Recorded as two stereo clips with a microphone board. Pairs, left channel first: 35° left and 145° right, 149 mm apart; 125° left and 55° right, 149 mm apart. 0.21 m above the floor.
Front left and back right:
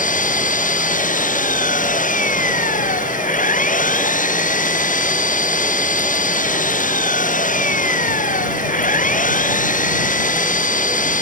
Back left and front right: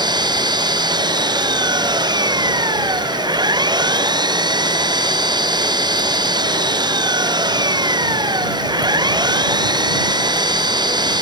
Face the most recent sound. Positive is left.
turn(degrees=5)